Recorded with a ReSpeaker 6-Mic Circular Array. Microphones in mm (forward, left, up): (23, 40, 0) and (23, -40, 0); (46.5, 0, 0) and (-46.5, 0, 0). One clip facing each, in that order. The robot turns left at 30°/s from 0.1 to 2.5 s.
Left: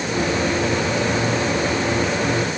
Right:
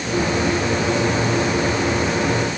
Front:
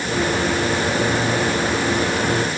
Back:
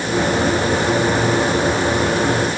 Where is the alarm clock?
I don't hear an alarm clock.